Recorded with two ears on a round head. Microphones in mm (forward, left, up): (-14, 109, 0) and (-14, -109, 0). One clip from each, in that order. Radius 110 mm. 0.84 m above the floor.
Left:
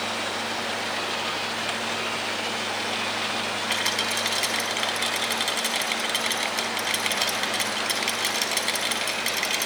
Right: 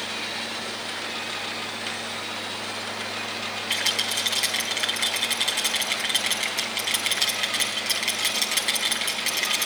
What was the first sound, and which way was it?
A rattle, centre (ahead or behind).